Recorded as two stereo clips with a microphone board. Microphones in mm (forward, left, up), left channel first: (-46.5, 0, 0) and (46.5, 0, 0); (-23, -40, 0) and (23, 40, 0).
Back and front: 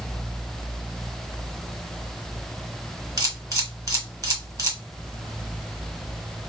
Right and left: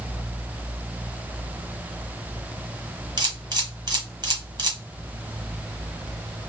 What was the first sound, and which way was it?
A camera shutter, 35° left.